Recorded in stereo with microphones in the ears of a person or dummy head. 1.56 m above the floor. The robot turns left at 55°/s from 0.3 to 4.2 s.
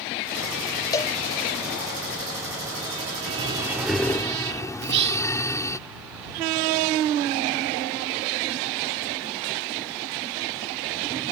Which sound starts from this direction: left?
A cowbell, at 0.9 s.